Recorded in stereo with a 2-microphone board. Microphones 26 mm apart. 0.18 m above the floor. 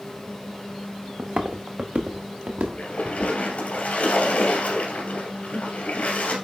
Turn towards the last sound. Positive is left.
turn(degrees=65)  # may be behind; listen again after turning